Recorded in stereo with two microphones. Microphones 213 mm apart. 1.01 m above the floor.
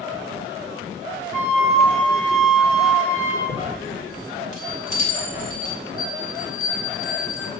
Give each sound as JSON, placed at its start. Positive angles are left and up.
{"t": 1.3, "sound": "a flute", "side_deg": 80, "distance_m": 1.8}
{"t": 3.5, "sound": "a chime", "side_deg": 35, "distance_m": 3.5}
{"t": 6.0, "sound": "a bell", "side_deg": 80, "distance_m": 1.4}